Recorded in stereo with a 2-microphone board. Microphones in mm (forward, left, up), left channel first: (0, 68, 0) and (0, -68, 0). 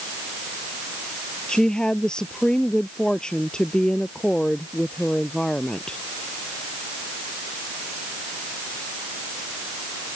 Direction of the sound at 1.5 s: 5° left (ahead or behind).